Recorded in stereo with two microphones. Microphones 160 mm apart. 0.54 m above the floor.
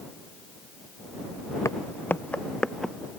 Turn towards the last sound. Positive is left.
turn(degrees=0)  # may be behind; listen again after turning